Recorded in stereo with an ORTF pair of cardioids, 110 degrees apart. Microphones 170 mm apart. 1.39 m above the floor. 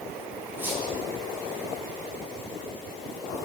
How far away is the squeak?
About 4 m.